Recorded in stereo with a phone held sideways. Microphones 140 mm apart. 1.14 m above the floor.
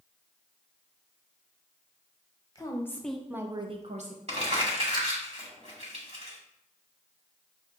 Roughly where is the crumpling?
Right.